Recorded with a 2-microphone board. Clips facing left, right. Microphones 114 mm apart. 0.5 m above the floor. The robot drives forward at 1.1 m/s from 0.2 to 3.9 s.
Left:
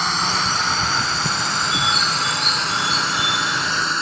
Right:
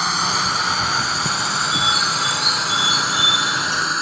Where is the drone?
Centre (ahead or behind).